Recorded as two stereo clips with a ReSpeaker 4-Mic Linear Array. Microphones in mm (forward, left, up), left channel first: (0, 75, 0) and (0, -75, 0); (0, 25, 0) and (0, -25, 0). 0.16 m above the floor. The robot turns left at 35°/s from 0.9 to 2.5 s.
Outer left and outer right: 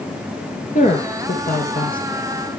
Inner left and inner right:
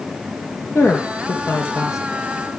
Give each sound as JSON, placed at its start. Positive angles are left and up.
{"t": 0.8, "sound": "a woman speaking", "azimuth_deg": 120, "distance_m": 3.5}